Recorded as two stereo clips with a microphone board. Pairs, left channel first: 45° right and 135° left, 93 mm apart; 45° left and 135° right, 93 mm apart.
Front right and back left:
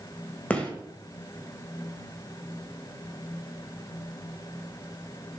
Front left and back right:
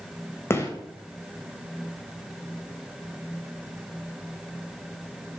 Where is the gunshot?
20° left, 1.4 m.